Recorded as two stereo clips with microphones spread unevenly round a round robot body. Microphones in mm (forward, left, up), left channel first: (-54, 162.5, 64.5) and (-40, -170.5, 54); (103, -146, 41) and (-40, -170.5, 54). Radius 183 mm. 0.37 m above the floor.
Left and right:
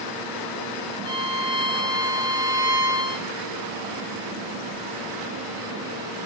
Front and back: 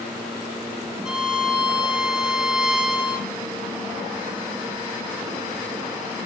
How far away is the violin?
About 1.0 m.